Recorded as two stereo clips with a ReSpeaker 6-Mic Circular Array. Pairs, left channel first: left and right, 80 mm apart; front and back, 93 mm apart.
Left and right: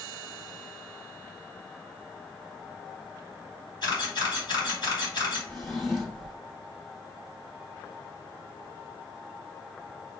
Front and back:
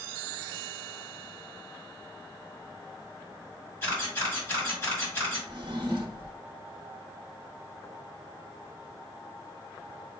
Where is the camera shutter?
65° left, 2 m.